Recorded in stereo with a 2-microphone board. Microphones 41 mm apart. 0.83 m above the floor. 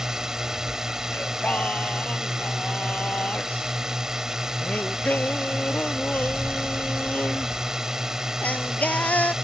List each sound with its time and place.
0.0 s a drone: 10° right (ahead or behind)
1.1 s singing: 35° left (ahead or behind)